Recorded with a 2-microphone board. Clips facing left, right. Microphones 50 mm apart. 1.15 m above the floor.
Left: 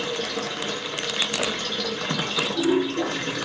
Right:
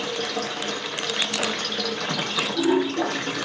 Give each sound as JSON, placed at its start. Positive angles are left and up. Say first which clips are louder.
{"t": 0.0, "sound": "running water", "louder": "even", "side_deg": -80, "distance_m": 1.3}